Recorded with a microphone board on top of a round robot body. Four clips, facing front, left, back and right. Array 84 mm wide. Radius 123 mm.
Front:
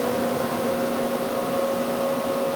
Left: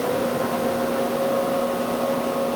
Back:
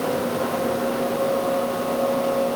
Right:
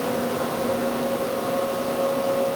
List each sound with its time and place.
Only background noise.